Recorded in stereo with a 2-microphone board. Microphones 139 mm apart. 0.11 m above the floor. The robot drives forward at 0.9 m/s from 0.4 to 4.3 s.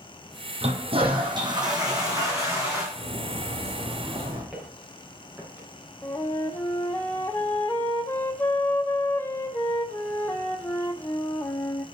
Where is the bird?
55° right (ahead or behind), 3.5 m; by 4.4 s 40° right (ahead or behind), 4 m.